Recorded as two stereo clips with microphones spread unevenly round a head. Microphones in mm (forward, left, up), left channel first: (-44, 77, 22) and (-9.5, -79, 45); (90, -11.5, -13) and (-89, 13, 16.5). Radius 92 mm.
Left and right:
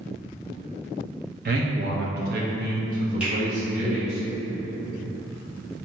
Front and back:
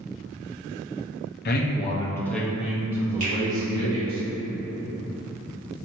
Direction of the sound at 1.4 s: 45° right.